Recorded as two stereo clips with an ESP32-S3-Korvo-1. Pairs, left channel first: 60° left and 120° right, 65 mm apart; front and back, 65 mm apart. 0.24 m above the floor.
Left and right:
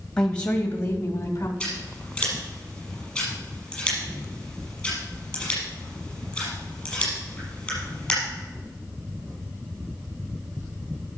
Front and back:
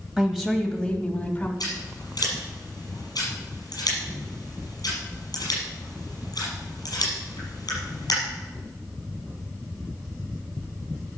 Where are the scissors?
15° right, 5.5 m.